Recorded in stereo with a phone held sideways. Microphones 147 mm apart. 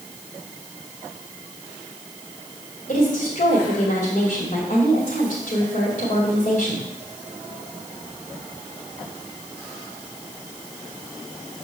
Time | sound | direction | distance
2.9 | a woman speaking | 70° left (ahead or behind) | 2.5 m